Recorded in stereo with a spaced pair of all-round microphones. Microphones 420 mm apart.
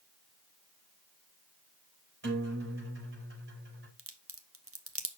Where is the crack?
35° right (ahead or behind), 0.8 m.